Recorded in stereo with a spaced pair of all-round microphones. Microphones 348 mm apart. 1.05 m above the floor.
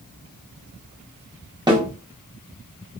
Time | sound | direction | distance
1.7 | a snare drum | 10° right (ahead or behind) | 1.0 m